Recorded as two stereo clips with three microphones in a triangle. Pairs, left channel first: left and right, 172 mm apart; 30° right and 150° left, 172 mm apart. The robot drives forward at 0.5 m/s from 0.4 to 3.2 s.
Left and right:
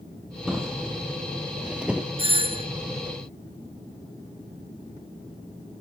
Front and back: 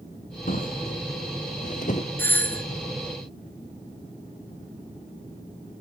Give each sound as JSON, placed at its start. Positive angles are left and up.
{"t": 0.5, "sound": "a drawer", "azimuth_deg": -5, "distance_m": 2.5}
{"t": 2.2, "sound": "a doorbell", "azimuth_deg": -95, "distance_m": 2.5}